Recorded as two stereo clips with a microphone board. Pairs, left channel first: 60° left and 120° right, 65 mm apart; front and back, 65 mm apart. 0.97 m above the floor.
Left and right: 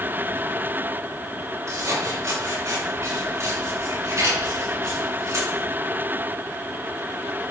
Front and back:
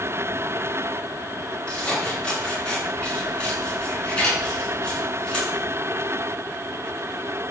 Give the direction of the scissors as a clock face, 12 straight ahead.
3 o'clock.